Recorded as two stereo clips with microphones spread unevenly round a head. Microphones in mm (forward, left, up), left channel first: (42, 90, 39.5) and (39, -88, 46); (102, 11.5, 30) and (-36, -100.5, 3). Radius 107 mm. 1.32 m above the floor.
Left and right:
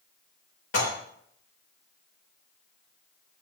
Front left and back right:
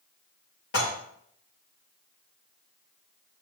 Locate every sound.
0.7 s dishes clattering: 80° left, 5.5 m